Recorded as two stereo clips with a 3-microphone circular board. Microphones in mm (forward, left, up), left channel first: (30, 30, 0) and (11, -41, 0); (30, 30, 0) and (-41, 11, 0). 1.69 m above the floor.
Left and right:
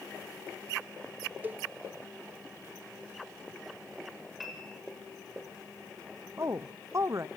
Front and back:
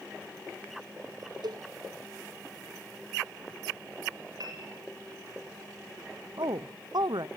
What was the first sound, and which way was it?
A cowbell, 170° right.